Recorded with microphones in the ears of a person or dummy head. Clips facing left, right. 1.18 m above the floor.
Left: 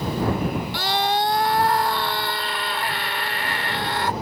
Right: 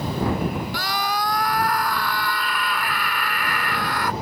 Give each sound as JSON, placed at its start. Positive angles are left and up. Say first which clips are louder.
{"t": 0.7, "sound": "a scream", "louder": "left 3 dB", "side_deg": 30}